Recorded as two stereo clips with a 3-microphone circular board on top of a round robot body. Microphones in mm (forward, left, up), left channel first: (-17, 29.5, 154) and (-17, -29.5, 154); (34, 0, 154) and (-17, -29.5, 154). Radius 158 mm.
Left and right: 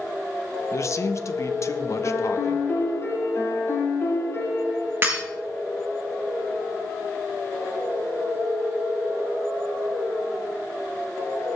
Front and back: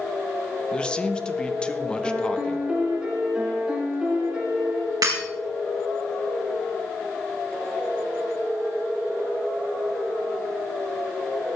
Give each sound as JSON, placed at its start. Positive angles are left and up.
{"t": 0.7, "sound": "a man speaking", "azimuth_deg": 100, "distance_m": 1.3}
{"t": 2.0, "sound": "a piano", "azimuth_deg": 135, "distance_m": 7.0}
{"t": 5.0, "sound": "breaking glass", "azimuth_deg": -145, "distance_m": 4.5}